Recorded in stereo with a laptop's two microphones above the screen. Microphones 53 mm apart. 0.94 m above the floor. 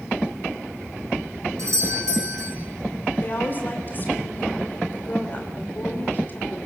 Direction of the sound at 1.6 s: 70° right (ahead or behind).